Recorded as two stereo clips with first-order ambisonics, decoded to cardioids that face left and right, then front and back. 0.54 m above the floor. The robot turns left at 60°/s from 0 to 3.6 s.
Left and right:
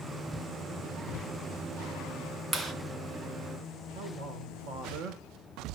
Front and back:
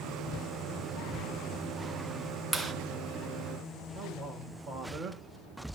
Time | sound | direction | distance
2.5 | a clap | 75° right | 0.9 m
4.0 | a man speaking | 115° right | 1.3 m